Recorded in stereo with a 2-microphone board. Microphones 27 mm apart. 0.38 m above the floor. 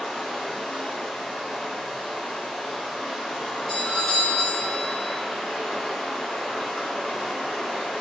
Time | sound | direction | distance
0.0 | running water | 40° left (ahead or behind) | 1.4 m
3.7 | a doorbell | 20° left (ahead or behind) | 1.6 m